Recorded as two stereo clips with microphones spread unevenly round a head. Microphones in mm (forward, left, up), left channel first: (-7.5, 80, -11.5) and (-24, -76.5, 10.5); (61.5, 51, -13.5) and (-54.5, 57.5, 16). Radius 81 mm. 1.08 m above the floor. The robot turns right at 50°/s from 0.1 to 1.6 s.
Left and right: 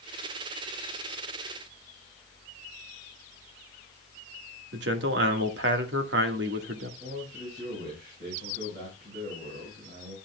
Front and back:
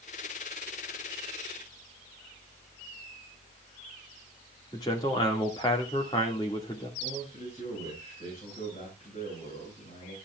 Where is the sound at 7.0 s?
60° right, 5.5 m.